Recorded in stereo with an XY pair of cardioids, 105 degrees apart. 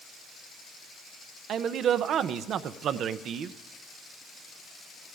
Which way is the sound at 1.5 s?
65° right.